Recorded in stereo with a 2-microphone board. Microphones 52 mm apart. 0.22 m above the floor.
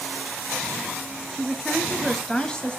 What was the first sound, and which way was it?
A woman speaking, 5° right (ahead or behind).